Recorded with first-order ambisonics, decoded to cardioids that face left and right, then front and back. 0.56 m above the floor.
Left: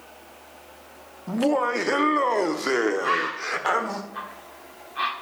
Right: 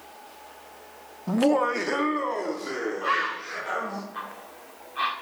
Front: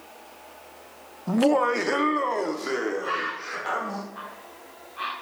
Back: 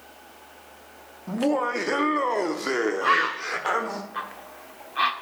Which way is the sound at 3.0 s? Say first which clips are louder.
Left 2 dB, back 7 dB; 175° left.